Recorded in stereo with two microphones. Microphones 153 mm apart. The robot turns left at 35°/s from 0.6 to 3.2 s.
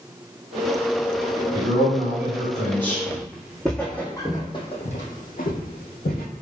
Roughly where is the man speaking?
Behind right.